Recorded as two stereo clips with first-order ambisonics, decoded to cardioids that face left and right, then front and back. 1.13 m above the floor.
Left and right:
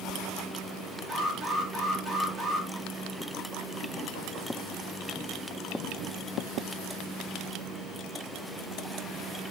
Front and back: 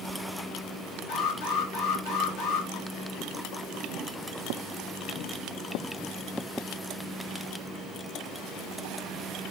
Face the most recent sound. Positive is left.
turn(degrees=-30)